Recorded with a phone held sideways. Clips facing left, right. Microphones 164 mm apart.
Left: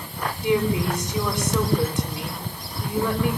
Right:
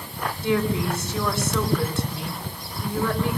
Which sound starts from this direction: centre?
A woman speaking, at 0.4 s.